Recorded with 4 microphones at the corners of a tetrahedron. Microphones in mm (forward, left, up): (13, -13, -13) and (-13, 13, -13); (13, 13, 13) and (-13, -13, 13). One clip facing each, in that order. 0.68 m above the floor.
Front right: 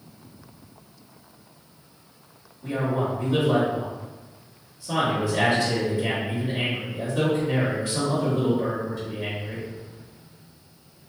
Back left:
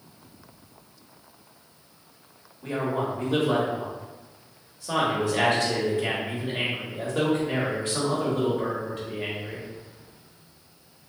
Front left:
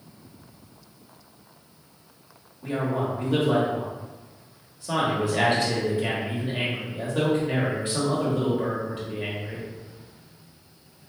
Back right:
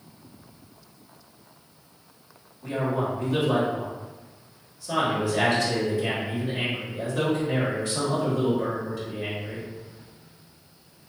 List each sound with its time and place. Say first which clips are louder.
2.6 s a man speaking: front right 1 dB, even; 100° left, 1.2 m